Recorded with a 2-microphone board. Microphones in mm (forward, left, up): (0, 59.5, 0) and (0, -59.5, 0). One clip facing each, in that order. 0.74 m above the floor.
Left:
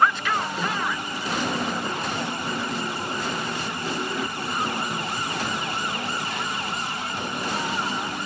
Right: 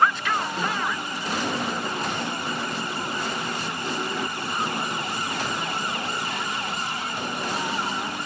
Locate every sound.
0.6 s a snare drum: 50° right (ahead or behind), 4.5 m